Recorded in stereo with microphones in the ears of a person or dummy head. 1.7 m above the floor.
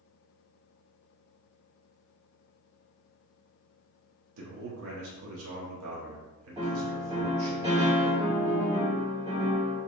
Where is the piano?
25° right (ahead or behind), 1.3 m.